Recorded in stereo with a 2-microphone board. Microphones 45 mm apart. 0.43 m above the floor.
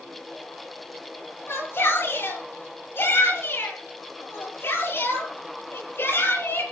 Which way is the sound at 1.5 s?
60° left (ahead or behind).